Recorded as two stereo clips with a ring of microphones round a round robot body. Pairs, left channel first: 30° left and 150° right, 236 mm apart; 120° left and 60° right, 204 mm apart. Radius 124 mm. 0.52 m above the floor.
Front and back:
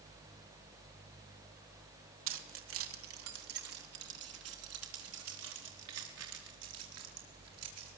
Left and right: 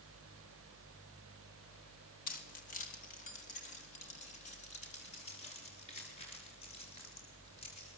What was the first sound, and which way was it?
Keys jangling, 175° left.